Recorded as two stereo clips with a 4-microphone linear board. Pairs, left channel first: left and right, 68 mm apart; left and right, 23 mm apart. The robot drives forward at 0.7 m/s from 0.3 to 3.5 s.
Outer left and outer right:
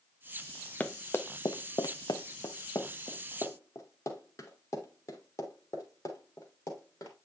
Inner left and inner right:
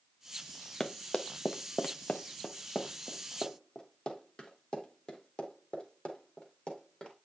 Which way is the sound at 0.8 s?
25° left (ahead or behind).